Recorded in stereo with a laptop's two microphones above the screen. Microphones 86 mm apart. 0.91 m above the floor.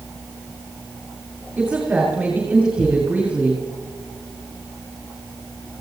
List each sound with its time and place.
1.6 s a woman speaking: 15° right (ahead or behind), 5 m